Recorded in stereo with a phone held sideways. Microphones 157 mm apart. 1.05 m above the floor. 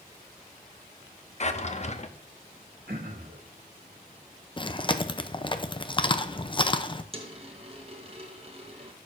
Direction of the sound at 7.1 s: 40° right (ahead or behind).